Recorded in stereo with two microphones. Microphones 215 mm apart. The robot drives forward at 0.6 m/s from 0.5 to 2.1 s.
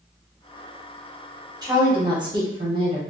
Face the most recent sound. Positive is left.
turn(degrees=-20)  # may be behind; listen again after turning